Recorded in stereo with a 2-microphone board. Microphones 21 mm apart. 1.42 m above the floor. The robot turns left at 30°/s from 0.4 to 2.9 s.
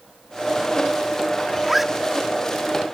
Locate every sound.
1.6 s a zipper: 5° right (ahead or behind); by 1.9 s 15° right (ahead or behind)